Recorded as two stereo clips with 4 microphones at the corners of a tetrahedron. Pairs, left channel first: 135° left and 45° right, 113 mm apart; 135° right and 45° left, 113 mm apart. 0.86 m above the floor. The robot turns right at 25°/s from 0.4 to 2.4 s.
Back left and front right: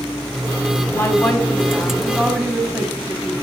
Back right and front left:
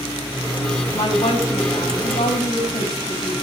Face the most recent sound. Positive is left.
turn(degrees=-140)